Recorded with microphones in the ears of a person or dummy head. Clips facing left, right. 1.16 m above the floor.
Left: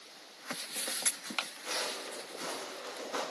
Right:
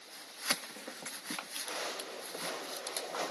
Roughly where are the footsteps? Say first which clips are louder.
Left 1 dB; left.